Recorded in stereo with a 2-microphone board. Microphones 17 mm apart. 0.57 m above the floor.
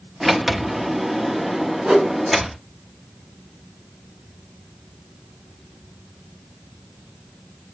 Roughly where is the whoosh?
Right.